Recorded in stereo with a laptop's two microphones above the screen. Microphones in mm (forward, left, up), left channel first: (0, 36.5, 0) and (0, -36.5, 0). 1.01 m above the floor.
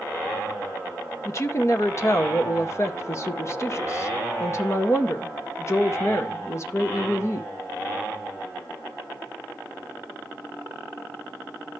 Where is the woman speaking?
40° left (ahead or behind), 0.8 m.